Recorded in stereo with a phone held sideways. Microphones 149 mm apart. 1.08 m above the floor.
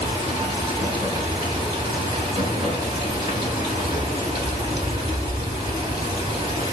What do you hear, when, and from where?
0.0 s running water: 35° right (ahead or behind), 1.5 m